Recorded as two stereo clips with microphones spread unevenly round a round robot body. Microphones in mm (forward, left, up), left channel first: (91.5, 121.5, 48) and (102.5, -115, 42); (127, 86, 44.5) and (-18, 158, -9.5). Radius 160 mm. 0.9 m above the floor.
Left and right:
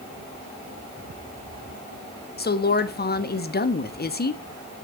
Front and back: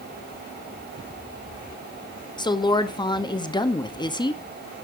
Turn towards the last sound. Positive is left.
turn(degrees=45)